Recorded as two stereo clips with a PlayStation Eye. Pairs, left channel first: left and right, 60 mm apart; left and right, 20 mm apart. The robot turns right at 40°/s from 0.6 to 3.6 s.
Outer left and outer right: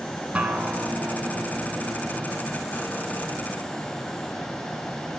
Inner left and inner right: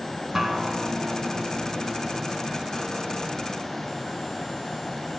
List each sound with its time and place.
0.3 s a guitar: 160° right, 0.9 m; by 2.5 s 80° right, 0.9 m